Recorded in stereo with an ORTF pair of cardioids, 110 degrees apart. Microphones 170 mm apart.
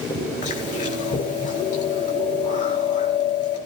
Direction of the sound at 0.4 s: 45° left.